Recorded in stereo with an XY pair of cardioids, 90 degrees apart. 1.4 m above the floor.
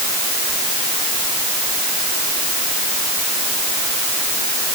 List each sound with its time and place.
Only background noise.